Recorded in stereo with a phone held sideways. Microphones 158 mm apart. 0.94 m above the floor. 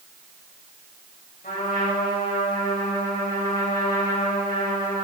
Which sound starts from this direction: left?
A trumpet, at 1.4 s.